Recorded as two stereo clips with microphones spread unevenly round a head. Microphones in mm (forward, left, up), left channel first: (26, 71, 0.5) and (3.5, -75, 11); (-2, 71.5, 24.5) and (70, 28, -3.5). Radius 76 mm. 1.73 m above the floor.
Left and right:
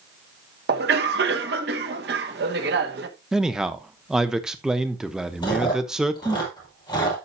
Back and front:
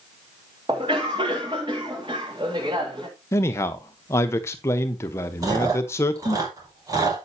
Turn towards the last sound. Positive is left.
turn(degrees=20)